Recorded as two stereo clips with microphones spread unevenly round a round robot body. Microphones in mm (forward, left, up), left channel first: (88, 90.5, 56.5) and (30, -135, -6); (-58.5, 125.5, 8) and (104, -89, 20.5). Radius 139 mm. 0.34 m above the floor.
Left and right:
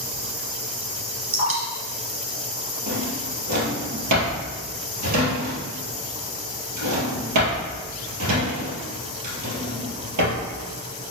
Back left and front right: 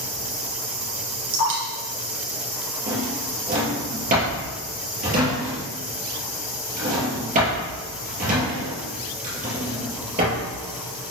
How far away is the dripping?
About 3.5 m.